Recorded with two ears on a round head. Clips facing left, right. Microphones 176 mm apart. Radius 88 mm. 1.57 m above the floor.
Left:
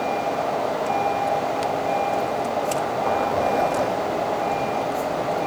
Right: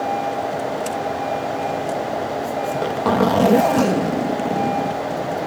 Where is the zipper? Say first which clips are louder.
Right 3 dB; 90° right.